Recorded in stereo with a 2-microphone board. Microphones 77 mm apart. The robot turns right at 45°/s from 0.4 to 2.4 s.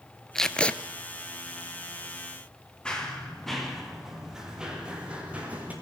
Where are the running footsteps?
10° left (ahead or behind), 5.5 m; by 5.7 s 20° right (ahead or behind), 7 m.